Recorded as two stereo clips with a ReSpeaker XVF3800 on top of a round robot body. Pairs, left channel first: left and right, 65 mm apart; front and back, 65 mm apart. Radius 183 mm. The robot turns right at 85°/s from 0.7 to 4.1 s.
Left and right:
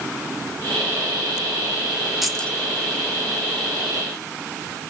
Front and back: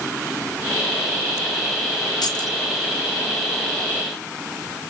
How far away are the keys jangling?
About 1.0 m.